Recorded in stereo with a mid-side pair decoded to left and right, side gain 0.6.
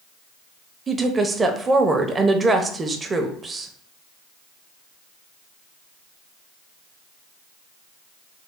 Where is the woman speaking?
25° right, 0.8 m.